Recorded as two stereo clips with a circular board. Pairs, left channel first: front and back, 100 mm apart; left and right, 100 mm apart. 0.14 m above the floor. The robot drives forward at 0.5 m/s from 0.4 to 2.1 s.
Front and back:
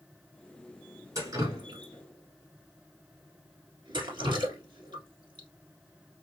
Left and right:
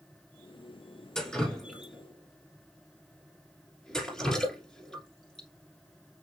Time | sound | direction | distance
1.1 | dripping | 170° left | 1.2 m